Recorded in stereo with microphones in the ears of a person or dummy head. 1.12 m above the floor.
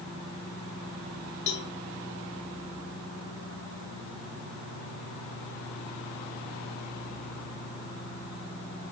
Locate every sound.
1.5 s a cowbell: 65° left (ahead or behind), 1.3 m